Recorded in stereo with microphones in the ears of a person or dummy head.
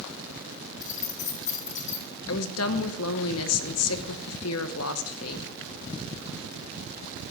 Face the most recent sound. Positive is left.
turn(degrees=75)  # may be behind; listen again after turning